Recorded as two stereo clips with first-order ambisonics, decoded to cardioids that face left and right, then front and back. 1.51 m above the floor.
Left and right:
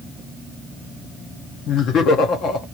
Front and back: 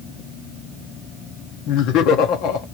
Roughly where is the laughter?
Ahead left.